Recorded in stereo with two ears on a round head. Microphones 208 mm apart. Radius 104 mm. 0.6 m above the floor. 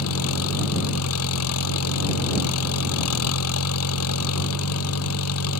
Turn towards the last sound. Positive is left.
turn(degrees=80)